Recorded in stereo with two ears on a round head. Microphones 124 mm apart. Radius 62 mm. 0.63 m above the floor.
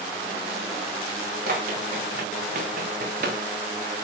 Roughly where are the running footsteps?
Right.